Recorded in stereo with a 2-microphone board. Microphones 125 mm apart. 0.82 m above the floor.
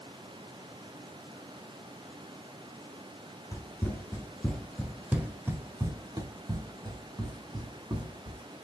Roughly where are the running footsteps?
Left.